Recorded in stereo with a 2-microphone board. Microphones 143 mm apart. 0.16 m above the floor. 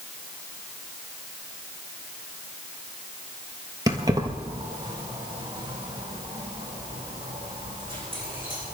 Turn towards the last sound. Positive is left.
turn(degrees=-35)  # may be behind; listen again after turning